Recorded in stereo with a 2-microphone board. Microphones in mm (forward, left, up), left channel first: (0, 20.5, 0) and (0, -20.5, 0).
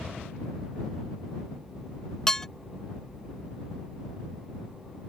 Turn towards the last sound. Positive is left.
turn(degrees=15)  # may be behind; listen again after turning